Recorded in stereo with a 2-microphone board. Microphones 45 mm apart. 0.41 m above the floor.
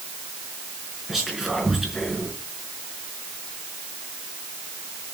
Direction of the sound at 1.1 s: 5° right (ahead or behind).